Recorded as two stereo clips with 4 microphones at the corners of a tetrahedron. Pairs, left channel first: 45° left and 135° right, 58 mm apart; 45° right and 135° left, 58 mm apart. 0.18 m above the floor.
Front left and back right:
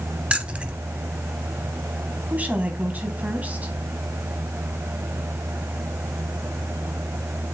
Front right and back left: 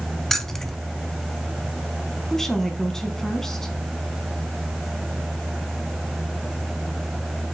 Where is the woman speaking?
125° right, 1.3 m.